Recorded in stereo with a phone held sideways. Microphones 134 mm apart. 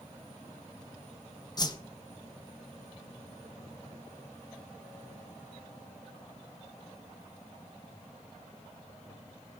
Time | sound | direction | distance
1.6 | a whoosh | 30° left (ahead or behind) | 1.7 m